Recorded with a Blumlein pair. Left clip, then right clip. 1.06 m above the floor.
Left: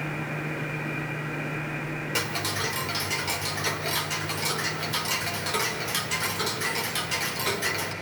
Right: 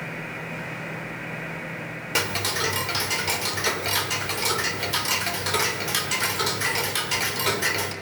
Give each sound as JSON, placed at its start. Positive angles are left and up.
{"t": 2.1, "sound": "ticking", "azimuth_deg": -15, "distance_m": 1.8}